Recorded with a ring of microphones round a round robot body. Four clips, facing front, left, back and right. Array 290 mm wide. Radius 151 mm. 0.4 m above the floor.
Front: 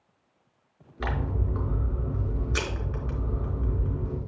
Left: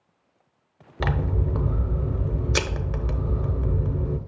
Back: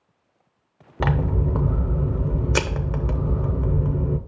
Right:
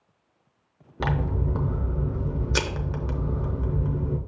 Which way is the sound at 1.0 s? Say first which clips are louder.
Even, back 8 dB; 170° left.